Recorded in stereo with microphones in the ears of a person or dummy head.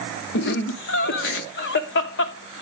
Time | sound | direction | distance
0.3 | laughter | 65° left (ahead or behind) | 0.7 m